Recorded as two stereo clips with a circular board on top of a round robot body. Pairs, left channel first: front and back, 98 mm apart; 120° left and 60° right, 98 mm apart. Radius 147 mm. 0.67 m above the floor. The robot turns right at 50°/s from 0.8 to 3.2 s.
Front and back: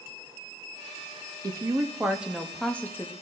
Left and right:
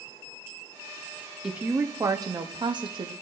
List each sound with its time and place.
1.4 s a woman speaking: 140° right, 1.5 m; by 3.1 s 55° right, 1.5 m